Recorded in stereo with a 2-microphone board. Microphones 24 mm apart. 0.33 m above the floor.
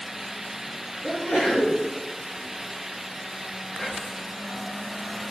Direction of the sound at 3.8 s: 10° left (ahead or behind).